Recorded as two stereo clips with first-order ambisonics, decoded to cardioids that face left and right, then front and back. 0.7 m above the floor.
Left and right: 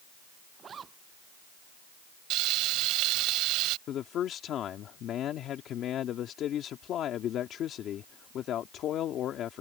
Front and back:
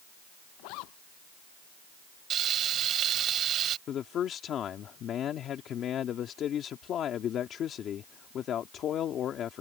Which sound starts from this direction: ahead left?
A man speaking, at 3.9 s.